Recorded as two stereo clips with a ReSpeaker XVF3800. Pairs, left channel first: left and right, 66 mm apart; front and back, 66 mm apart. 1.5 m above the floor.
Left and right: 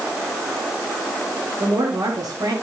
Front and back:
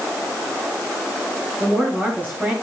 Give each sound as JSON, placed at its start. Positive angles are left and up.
{"t": 1.6, "sound": "a woman speaking", "azimuth_deg": -115, "distance_m": 8.5}